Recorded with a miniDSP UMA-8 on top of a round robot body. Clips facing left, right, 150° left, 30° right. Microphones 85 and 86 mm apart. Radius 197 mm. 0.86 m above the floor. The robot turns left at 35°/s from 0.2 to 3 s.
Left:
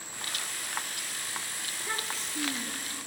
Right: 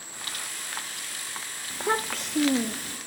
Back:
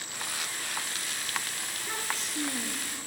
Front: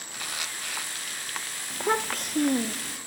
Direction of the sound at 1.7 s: 45° right.